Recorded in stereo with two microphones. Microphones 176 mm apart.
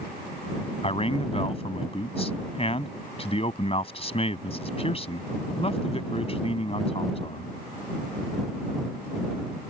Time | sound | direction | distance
0.8 | a man speaking | 35° left (ahead or behind) | ?